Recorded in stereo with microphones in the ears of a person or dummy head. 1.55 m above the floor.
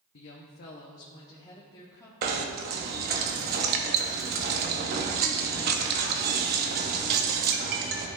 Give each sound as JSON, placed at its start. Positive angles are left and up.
{"t": 0.1, "sound": "a woman speaking", "side_deg": 60, "distance_m": 0.9}
{"t": 2.2, "sound": "knocking", "side_deg": -50, "distance_m": 0.9}